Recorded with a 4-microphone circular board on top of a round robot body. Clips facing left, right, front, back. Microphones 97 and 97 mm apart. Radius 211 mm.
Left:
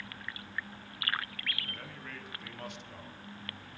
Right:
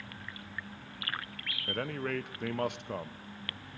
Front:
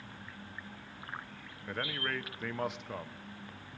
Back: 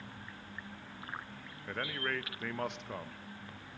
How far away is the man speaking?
About 0.8 m.